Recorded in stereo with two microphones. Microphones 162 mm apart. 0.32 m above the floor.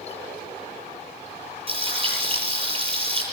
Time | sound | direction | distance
1.7 | frying | 35° right (ahead or behind) | 8.5 m